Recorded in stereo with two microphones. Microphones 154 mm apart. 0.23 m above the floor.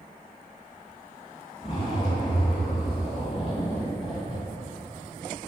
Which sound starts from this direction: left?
A zipper, at 1.6 s.